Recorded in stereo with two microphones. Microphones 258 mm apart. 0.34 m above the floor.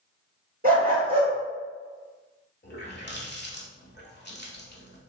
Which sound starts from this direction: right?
A dog barking, at 0.6 s.